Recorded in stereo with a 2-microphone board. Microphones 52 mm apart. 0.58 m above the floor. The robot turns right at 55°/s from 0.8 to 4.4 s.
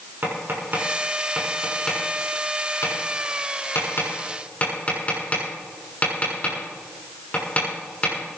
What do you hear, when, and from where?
0.2 s tapping: 45° right (ahead or behind), 7 m; by 8.4 s 30° left (ahead or behind), 7 m